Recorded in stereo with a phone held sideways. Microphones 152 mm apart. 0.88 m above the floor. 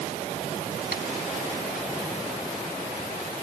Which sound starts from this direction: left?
Tapping, at 0.9 s.